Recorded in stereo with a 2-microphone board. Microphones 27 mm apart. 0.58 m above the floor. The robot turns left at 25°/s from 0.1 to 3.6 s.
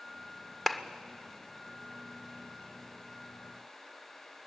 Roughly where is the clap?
Centre.